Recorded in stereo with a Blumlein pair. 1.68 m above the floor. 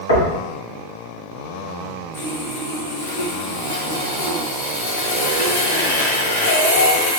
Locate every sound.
0.1 s knocking: 65° left, 1.5 m
2.1 s sawing: 60° left, 1.2 m